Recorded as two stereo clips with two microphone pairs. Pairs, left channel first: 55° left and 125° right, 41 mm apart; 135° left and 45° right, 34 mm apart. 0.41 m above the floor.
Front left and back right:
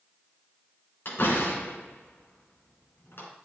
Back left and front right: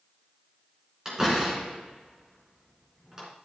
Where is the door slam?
30° left, 3 m.